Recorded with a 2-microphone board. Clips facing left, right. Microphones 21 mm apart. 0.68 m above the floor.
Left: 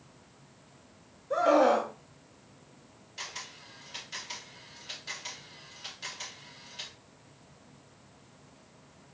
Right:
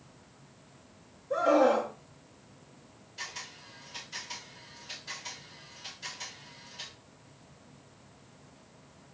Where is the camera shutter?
35° left (ahead or behind), 1.8 m.